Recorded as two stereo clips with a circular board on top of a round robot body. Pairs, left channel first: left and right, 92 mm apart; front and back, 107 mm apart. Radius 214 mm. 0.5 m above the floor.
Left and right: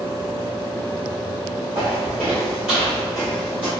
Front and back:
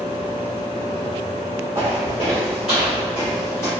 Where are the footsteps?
140° right, 0.6 m; by 3.7 s 70° left, 0.9 m.